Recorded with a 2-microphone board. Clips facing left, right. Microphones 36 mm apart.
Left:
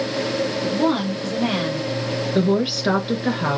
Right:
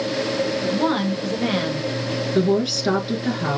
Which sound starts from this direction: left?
A woman speaking, at 2.4 s.